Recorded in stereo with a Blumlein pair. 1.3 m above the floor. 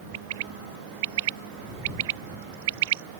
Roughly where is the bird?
Ahead right.